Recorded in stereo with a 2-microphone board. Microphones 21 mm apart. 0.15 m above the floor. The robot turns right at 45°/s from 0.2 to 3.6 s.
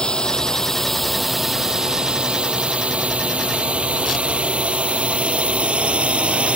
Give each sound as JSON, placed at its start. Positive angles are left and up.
{"t": 0.0, "sound": "a drone", "side_deg": 40}